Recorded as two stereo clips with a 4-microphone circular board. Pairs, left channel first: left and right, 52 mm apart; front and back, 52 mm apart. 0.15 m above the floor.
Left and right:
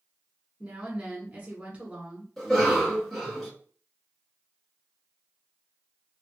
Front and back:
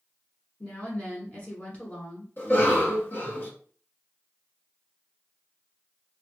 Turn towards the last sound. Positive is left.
turn(degrees=5)